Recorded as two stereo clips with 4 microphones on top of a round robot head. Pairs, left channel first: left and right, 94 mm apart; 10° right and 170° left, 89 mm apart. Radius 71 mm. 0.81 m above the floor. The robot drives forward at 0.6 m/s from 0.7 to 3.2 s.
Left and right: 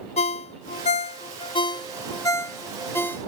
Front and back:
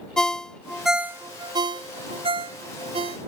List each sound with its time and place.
0.2 s a ringtone: 75° left; by 3.2 s 160° left